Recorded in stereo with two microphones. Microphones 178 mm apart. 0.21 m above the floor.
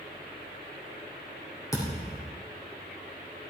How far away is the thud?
About 4.5 m.